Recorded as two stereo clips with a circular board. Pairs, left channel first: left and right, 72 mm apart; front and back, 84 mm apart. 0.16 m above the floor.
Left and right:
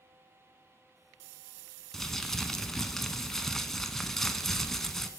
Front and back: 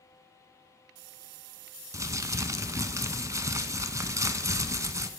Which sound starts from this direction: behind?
Crumpling, at 1.9 s.